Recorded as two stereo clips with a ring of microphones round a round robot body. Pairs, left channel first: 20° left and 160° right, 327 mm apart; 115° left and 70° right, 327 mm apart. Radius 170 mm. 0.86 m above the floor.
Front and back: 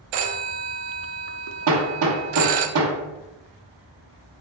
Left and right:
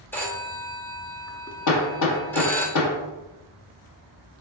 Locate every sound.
0.1 s a phone ringing: 165° right, 0.6 m
1.7 s hammering: 155° left, 1.1 m